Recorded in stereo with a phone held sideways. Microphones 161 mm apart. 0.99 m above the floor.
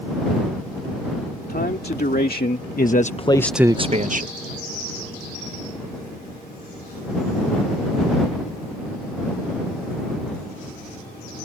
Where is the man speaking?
80° left; by 4.3 s 60° right (ahead or behind).